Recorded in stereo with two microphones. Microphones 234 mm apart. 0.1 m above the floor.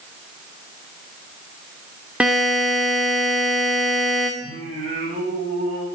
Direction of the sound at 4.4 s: 40° right (ahead or behind).